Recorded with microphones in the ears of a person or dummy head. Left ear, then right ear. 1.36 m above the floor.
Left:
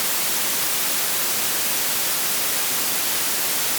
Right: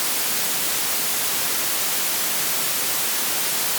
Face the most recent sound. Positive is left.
No sound to turn to.